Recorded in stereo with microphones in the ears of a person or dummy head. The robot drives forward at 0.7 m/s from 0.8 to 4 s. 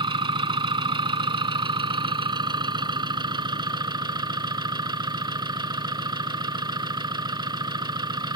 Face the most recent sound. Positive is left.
turn(degrees=-20)  # may be behind; listen again after turning